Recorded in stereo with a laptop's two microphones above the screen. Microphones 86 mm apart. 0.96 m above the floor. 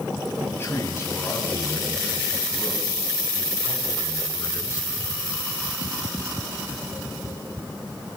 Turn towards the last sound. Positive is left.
turn(degrees=30)  # may be behind; listen again after turning